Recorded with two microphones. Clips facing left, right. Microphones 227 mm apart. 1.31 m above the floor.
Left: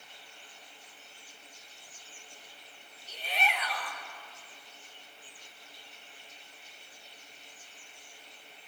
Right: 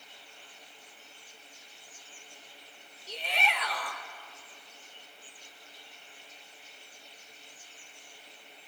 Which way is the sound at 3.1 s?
75° right (ahead or behind).